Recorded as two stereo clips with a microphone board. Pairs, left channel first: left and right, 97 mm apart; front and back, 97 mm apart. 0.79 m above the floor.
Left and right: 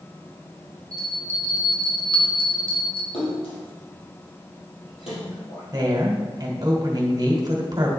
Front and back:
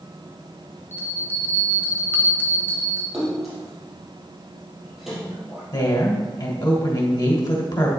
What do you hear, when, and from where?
0.9 s a bell: 70° left, 1.6 m
3.1 s a splash: 90° left, 3.5 m
5.7 s a woman speaking: 40° right, 2.5 m